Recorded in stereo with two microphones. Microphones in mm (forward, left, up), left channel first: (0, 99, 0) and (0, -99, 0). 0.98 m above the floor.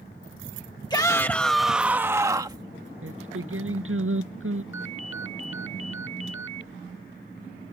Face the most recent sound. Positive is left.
turn(degrees=70)  # may be behind; listen again after turning